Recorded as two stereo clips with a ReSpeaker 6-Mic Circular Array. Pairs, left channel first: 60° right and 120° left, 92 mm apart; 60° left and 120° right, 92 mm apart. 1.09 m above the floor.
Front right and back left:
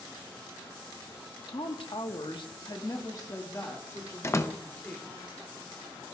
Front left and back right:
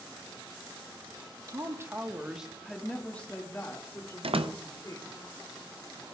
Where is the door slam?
120° right, 0.6 m.